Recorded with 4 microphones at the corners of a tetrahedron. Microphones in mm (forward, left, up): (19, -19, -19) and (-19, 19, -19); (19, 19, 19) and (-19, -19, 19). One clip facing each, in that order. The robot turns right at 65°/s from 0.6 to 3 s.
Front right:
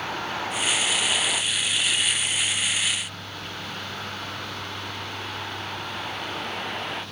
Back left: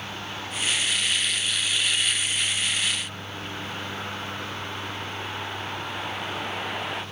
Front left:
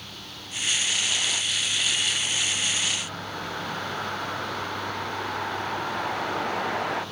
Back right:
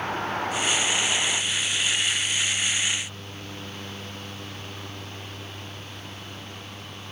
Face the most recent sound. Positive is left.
turn(degrees=50)